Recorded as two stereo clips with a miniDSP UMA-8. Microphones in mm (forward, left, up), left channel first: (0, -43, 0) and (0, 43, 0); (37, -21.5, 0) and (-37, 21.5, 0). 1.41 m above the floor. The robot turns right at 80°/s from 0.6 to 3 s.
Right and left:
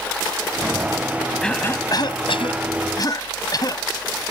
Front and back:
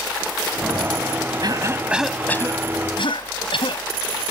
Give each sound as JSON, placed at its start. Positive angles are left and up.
{"t": 1.4, "sound": "a cough", "azimuth_deg": -175}